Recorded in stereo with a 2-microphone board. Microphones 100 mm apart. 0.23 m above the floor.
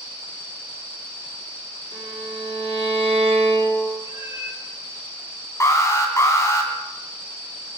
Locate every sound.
1.9 s a violin: 70° right (ahead or behind), 3.5 m
4.0 s a cat meowing: 55° left (ahead or behind), 1.5 m
5.6 s an alarm: 30° left (ahead or behind), 2 m